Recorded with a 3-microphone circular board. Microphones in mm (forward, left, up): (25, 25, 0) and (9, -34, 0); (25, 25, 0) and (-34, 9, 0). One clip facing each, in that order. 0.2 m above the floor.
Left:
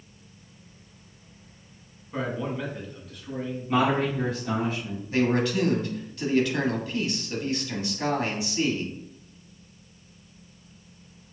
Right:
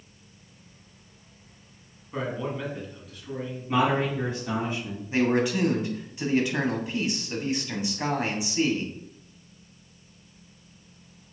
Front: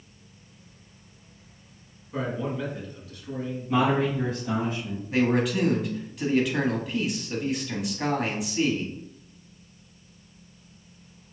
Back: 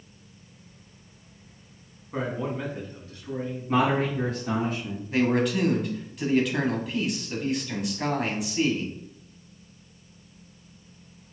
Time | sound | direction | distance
2.1 | a man speaking | 165° left | 1.6 m
3.7 | a man speaking | 170° left | 1.4 m
5.1 | a man speaking | 70° right | 1.2 m